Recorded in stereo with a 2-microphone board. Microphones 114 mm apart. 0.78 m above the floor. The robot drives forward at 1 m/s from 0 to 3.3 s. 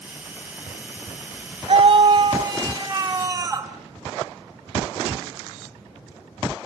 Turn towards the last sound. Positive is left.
turn(degrees=-25)  # may be behind; listen again after turning